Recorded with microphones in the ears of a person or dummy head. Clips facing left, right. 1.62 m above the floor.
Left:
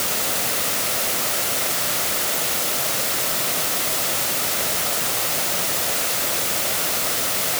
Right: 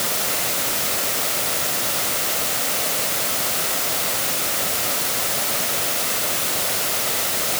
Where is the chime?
I don't hear a chime.